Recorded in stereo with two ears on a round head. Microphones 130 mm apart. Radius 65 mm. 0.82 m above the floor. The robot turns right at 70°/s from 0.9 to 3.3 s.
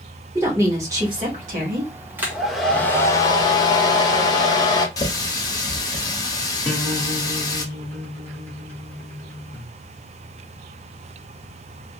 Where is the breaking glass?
No breaking glass in this recording.